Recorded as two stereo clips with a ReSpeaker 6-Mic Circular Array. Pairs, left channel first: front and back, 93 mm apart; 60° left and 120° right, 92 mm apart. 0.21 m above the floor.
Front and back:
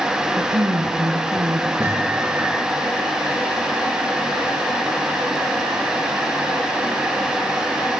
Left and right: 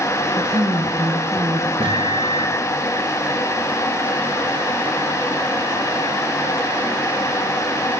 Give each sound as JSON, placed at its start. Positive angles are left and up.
{"t": 0.4, "sound": "a woman speaking", "azimuth_deg": -155, "distance_m": 2.5}
{"t": 1.8, "sound": "a microwave", "azimuth_deg": -110, "distance_m": 5.5}